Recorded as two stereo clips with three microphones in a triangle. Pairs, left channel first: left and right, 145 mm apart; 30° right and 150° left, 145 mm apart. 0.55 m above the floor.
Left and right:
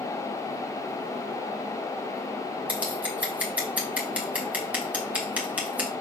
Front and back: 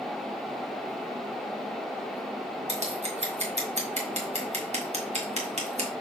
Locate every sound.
2.7 s scissors: 170° right, 1.9 m